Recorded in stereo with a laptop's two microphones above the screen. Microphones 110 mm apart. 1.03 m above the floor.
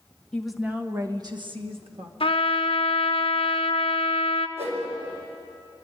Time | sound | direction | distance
0.3 | a woman speaking | 10° left (ahead or behind) | 1.3 m
2.2 | a trumpet | 65° left (ahead or behind) | 1.2 m
4.6 | a whoosh | 80° right | 4.5 m